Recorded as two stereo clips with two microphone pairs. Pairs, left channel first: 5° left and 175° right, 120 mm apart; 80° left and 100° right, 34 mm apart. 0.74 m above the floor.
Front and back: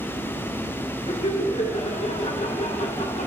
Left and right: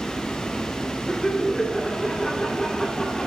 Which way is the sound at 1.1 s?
15° left.